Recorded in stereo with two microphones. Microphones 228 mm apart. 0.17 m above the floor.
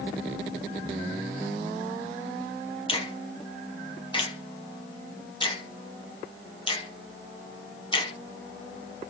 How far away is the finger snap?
About 0.9 m.